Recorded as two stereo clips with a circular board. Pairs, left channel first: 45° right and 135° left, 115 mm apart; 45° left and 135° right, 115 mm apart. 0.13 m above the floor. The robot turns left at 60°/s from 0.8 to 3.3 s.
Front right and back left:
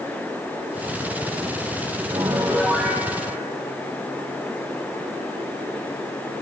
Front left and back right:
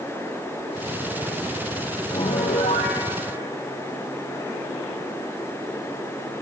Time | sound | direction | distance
2.1 | a piano | 85° left | 1.5 m